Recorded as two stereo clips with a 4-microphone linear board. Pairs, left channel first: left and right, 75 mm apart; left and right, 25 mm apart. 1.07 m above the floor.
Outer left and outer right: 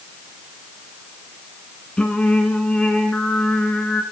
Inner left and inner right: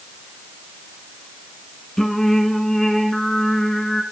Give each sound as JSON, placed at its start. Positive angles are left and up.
{"t": 2.0, "sound": "singing", "side_deg": 10, "distance_m": 1.7}